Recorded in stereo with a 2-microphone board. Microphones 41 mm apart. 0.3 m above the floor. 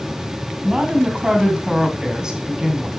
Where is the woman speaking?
15° right (ahead or behind), 2.5 m.